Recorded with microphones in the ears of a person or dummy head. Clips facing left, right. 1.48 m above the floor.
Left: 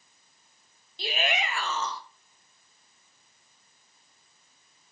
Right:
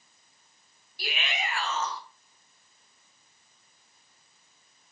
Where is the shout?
15° left (ahead or behind), 1.0 m; by 2.0 s 70° left (ahead or behind), 1.2 m.